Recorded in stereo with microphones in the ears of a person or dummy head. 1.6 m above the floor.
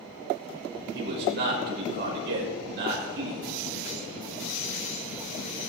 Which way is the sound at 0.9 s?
55° right (ahead or behind).